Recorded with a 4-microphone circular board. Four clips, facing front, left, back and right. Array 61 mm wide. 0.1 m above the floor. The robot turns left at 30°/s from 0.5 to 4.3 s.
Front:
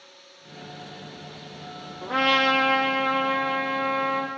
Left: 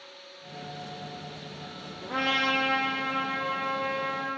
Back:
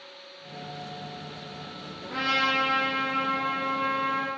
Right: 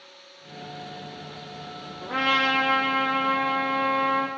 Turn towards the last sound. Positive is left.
turn(degrees=-75)